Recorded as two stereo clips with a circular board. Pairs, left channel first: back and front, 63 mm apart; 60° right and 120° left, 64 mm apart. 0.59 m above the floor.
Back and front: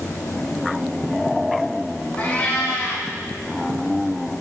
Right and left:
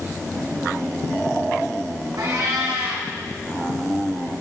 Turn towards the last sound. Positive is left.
turn(degrees=115)